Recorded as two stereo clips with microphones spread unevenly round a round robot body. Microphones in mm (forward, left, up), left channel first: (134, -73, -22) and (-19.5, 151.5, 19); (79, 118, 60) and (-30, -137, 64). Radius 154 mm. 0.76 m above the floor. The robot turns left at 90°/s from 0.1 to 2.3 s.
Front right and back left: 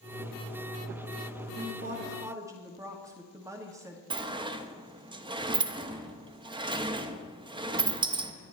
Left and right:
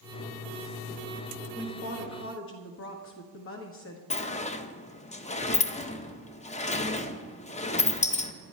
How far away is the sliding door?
About 0.8 m.